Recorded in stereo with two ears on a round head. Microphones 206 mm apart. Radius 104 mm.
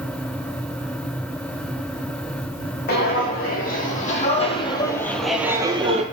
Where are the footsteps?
45° left (ahead or behind), 1.9 m; by 6.0 s 30° right (ahead or behind), 0.9 m.